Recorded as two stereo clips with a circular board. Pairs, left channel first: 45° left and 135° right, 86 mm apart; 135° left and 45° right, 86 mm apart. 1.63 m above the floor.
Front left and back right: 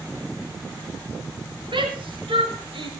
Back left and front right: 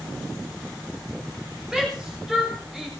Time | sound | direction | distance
1.7 | a shout | 130° right | 6.5 m